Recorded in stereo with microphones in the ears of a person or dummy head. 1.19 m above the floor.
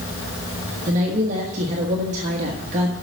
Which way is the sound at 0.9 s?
40° right (ahead or behind).